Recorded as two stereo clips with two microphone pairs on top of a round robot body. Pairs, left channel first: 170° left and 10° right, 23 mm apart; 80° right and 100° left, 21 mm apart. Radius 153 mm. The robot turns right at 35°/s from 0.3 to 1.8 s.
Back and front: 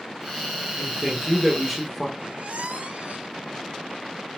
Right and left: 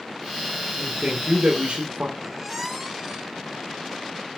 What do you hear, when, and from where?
0.8 s a man speaking: 45° left, 1.9 m; by 2.1 s 80° left, 1.9 m
2.2 s a squeak: 20° left, 1.4 m